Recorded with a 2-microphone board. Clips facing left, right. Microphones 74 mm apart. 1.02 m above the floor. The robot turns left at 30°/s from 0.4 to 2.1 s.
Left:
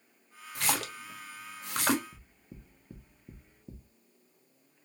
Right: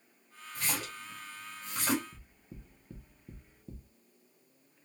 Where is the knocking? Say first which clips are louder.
Even; 15° left (ahead or behind), 0.8 m.